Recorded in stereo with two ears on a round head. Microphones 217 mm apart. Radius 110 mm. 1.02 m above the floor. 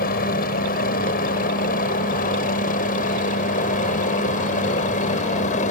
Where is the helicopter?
35° left (ahead or behind); by 5.7 s 30° left (ahead or behind).